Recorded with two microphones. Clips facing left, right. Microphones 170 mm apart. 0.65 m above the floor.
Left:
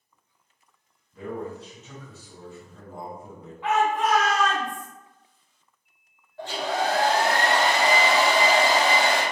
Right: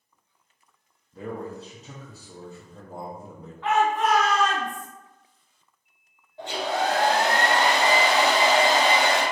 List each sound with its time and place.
1.1 s a man speaking: 35° right (ahead or behind), 0.6 m
3.6 s a shout: 15° left (ahead or behind), 1.4 m
6.4 s a hair dryer: 20° right (ahead or behind), 0.8 m